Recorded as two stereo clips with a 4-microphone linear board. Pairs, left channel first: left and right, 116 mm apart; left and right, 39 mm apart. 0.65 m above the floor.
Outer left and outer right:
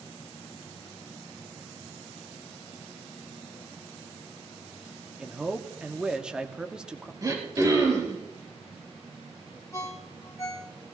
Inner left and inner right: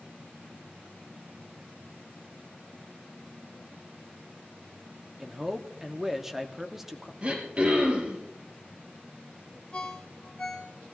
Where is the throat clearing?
30° right (ahead or behind), 4 m.